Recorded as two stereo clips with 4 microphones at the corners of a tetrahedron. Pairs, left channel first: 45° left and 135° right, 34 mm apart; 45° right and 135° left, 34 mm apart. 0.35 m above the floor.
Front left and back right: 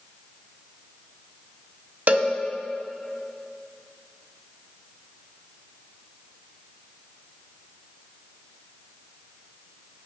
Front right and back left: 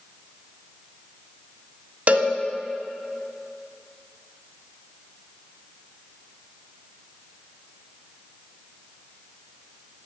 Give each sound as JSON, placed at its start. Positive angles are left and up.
{"t": 2.1, "sound": "a cowbell", "azimuth_deg": 180, "distance_m": 0.6}